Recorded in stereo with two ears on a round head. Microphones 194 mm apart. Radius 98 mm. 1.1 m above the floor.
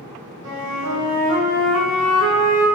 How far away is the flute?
About 1.6 m.